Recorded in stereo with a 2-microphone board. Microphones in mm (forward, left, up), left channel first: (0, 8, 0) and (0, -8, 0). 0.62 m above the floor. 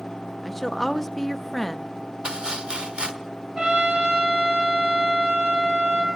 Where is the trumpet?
50° right (ahead or behind), 7.5 m.